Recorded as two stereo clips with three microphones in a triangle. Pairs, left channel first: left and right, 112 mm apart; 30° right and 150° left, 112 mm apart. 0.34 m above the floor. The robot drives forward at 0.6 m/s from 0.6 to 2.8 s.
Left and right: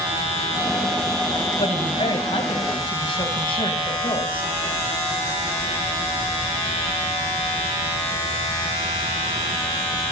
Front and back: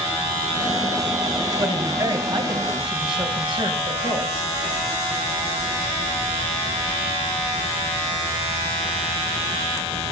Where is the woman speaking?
100° left, 2.5 m; by 4.5 s 120° left, 2.5 m.